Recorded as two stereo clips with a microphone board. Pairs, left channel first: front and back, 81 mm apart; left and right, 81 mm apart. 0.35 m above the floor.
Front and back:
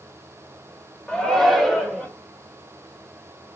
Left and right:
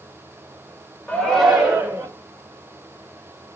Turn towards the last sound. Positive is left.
turn(degrees=-90)